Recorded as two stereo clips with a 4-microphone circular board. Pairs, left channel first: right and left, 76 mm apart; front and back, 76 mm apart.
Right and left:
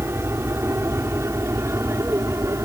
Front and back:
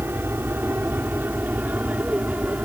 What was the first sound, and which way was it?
An aircraft, 130° left.